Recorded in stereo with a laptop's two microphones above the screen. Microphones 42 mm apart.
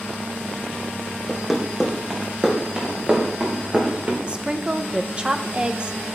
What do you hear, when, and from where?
1.3 s running footsteps: 5° right (ahead or behind), 2 m; by 4.2 s 35° right (ahead or behind), 3.5 m
4.3 s a woman speaking: 25° right (ahead or behind), 0.5 m